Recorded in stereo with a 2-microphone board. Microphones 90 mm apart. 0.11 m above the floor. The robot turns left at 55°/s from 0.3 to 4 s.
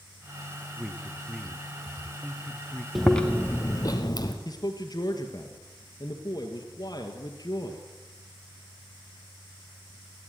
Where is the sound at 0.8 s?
10° right (ahead or behind), 1.3 m; by 2.9 s 20° left (ahead or behind), 1.3 m.